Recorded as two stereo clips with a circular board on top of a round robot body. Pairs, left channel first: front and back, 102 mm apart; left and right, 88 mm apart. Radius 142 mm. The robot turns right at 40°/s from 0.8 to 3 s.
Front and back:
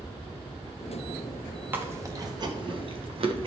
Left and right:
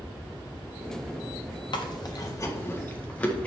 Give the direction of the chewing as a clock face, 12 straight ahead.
8 o'clock.